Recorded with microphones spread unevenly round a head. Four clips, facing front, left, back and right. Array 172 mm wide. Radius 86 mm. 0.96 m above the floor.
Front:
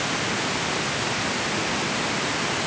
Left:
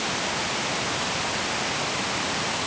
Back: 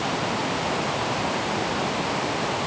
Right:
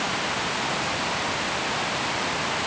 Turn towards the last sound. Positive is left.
No sound to turn to.